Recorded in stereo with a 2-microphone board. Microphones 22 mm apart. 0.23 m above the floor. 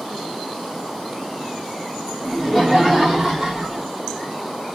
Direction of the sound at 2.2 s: 10° right (ahead or behind).